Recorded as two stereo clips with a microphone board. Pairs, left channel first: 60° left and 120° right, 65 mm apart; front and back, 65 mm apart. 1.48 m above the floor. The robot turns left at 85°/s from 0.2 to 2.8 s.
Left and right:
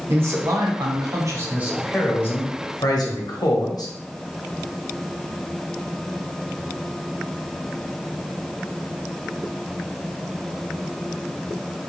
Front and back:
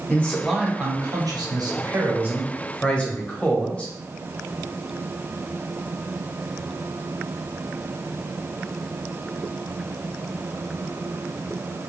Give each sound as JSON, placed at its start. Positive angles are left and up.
{"t": 0.1, "sound": "a man speaking", "azimuth_deg": -70, "distance_m": 0.8}